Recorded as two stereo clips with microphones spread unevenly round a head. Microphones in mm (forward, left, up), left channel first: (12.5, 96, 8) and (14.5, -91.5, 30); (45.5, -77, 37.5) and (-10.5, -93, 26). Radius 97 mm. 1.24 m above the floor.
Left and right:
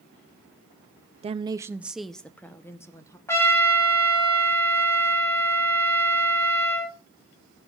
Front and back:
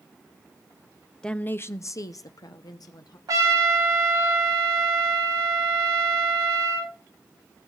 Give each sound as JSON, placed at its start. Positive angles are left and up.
{"t": 1.2, "sound": "a woman speaking", "azimuth_deg": -70, "distance_m": 0.5}
{"t": 3.3, "sound": "a trumpet", "azimuth_deg": 165, "distance_m": 3.0}